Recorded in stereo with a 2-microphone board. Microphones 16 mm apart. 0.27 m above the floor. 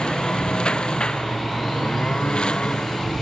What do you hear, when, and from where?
0.0 s a lawn mower: 80° left